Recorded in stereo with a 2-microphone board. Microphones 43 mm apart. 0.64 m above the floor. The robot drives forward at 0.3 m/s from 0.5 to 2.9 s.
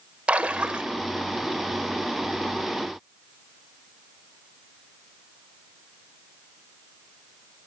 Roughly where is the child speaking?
No child speaking in this recording.